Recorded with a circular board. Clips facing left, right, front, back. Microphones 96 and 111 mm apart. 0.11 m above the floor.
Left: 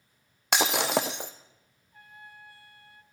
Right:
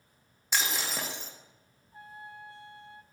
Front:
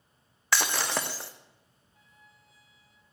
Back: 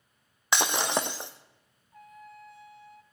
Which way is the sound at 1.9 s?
155° right.